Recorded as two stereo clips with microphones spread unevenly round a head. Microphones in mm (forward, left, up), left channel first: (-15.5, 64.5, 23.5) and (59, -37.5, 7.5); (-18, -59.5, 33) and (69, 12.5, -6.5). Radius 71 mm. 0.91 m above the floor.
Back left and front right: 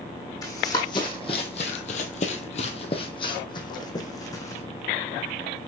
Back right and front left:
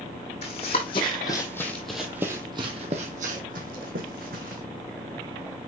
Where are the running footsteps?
170° right, 2.5 m; by 4.6 s 65° left, 3.5 m.